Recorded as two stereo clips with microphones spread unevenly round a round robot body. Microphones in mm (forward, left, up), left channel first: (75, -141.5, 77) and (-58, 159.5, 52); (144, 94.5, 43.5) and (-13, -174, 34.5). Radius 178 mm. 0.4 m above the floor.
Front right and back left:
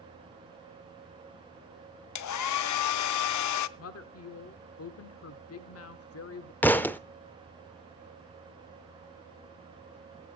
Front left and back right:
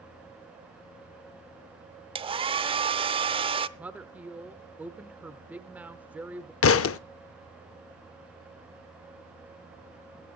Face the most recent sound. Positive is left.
turn(degrees=20)